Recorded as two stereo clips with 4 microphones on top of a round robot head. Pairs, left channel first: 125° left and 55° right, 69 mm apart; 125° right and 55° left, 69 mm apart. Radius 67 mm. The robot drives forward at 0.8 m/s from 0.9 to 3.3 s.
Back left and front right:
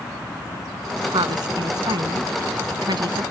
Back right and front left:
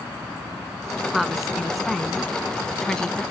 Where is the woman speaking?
35° right; by 3.2 s 50° right.